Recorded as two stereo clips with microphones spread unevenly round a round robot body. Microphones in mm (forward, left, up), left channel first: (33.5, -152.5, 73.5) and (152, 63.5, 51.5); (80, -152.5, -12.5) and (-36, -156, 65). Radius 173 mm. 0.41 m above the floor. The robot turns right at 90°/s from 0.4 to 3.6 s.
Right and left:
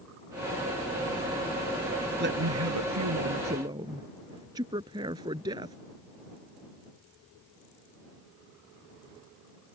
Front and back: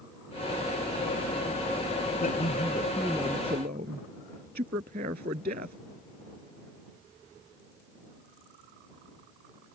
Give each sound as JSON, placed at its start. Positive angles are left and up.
{"t": 2.2, "sound": "a man speaking", "azimuth_deg": 15}